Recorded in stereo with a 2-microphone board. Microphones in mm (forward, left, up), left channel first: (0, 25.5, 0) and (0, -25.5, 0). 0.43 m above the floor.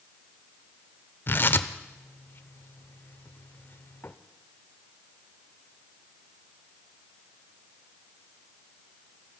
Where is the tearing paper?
45° left (ahead or behind), 0.7 m.